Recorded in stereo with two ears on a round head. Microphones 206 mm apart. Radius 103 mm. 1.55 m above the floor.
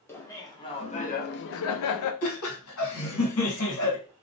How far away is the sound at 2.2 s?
About 1.3 m.